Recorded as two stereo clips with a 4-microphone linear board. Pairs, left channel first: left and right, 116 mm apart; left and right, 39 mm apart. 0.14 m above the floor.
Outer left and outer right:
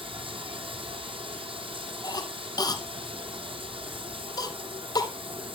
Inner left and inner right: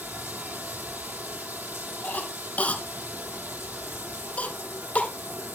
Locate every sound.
0.0 s running water: 50° right (ahead or behind), 1.8 m
2.0 s a cough: 35° left (ahead or behind), 1.4 m